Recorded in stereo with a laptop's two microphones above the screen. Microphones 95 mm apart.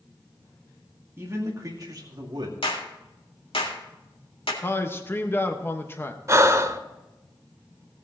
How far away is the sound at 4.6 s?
About 1.3 m.